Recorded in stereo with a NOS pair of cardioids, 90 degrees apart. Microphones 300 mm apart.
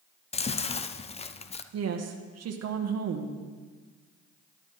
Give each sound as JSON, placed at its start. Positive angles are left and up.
{"t": 0.3, "sound": "chewing", "azimuth_deg": 20, "distance_m": 0.5}
{"t": 1.7, "sound": "a woman speaking", "azimuth_deg": -55, "distance_m": 1.4}